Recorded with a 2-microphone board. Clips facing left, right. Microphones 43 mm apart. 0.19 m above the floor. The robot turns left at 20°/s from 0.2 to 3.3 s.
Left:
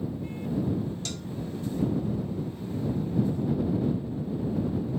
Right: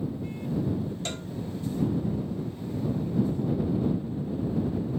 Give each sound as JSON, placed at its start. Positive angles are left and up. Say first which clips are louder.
{"t": 1.1, "sound": "a cowbell", "louder": "right 2 dB", "side_deg": -35}